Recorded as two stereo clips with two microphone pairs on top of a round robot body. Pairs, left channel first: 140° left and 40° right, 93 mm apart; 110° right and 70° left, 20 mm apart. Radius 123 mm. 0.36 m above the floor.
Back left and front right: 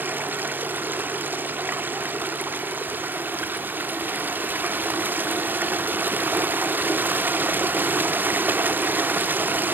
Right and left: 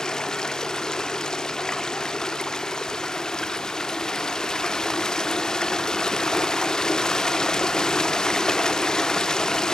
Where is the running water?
110° right, 0.8 m.